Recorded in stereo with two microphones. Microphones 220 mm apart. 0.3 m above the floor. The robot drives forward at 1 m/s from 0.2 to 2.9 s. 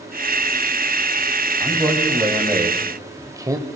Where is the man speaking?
10° right (ahead or behind), 2.5 m; by 3.7 s 15° right (ahead or behind), 1.6 m.